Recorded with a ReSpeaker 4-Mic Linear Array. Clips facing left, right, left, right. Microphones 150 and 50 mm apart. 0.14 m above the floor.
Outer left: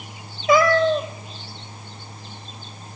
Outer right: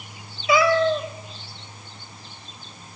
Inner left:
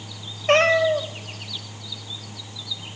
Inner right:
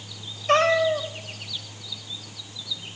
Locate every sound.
0.5 s a cat meowing: 50° left (ahead or behind), 1.1 m